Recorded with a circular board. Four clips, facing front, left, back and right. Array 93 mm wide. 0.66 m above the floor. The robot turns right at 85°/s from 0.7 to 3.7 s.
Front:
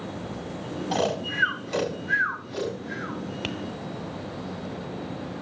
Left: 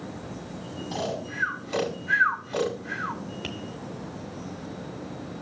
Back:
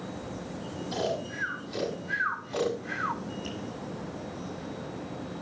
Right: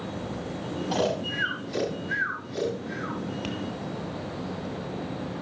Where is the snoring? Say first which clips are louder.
Right 4 dB, front 5 dB; 20° right, 4.5 m; by 3.2 s 170° left, 4.5 m.